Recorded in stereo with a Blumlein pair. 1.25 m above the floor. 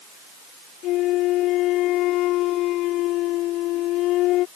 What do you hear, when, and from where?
0.8 s a flute: 35° left